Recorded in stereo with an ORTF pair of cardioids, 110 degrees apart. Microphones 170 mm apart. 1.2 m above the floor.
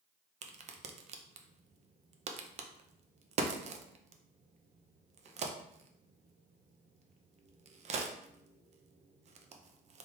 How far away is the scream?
No scream in this recording.